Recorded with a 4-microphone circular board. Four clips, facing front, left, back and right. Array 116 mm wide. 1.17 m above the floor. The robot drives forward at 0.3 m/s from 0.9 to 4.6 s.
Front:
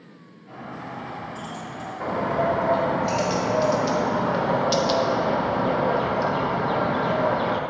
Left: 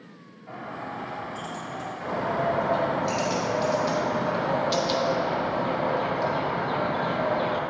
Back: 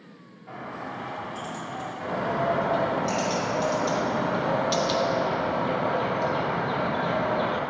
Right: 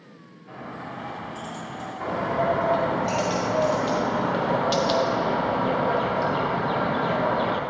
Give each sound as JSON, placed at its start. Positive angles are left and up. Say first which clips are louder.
{"t": 0.5, "sound": "a bird", "louder": "left 1 dB, even", "azimuth_deg": 115, "distance_m": 2.5}
{"t": 2.0, "sound": "a bird", "louder": "right 2 dB, front 4 dB", "azimuth_deg": -20, "distance_m": 1.5}